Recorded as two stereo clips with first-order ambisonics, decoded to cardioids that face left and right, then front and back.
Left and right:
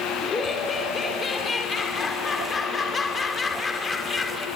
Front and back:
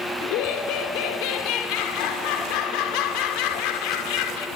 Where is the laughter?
15° left, 3 m.